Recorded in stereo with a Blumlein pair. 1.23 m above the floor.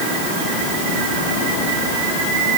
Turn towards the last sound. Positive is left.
No sound to turn to.